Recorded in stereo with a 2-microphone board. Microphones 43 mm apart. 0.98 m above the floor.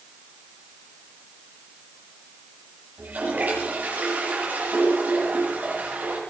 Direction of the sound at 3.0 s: 40° right (ahead or behind).